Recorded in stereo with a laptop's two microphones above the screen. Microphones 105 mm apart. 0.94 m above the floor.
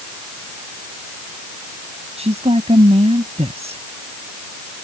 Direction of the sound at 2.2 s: 80° right.